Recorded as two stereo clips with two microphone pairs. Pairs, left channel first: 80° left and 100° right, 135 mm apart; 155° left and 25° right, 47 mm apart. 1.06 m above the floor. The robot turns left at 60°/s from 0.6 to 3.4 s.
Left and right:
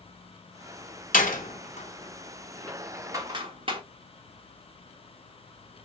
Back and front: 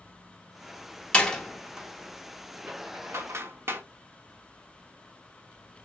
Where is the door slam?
90° left, 2 m; by 3.8 s 50° right, 2 m.